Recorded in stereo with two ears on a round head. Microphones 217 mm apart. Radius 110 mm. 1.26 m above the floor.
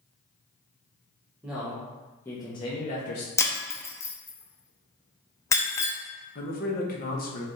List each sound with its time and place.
1.4 s a man speaking: 5° right (ahead or behind), 1.1 m; by 3.3 s 50° left (ahead or behind), 0.6 m
3.4 s breaking glass: 15° left (ahead or behind), 0.5 m
6.3 s a man speaking: 40° left (ahead or behind), 0.7 m